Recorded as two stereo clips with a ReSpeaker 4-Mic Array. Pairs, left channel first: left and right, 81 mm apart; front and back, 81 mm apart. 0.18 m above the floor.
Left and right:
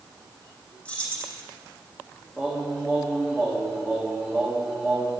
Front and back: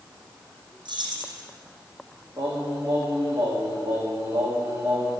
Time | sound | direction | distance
0.8 | keys jangling | 165° left | 4.5 m
2.4 | singing | 165° left | 7 m